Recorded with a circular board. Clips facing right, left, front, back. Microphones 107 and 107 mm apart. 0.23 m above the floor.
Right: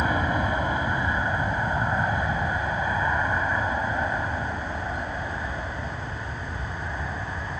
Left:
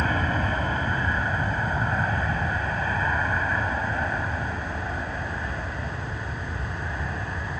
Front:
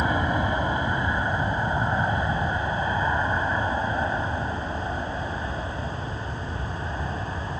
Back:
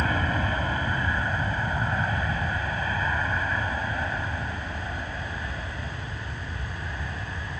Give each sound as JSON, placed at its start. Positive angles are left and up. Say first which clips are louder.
{"t": 0.0, "sound": "an aircraft", "louder": "right 1 dB, front 3 dB", "azimuth_deg": -35}